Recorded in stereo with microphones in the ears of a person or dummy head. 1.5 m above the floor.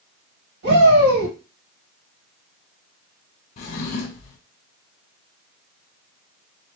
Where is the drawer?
45° left (ahead or behind), 0.8 m.